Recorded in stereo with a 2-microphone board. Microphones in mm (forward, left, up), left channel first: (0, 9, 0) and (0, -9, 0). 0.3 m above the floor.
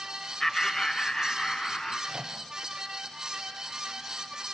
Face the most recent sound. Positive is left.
turn(degrees=-45)  # may be behind; listen again after turning